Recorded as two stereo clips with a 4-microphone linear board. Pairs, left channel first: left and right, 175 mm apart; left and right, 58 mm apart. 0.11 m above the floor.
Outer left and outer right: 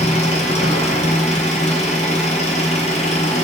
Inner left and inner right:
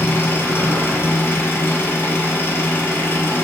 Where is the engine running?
40° left (ahead or behind), 0.9 m.